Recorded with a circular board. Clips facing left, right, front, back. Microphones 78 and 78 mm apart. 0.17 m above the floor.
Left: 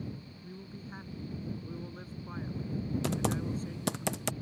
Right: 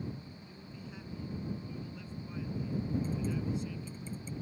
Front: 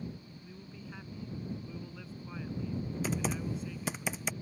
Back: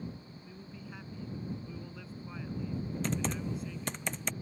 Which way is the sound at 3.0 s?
85° left.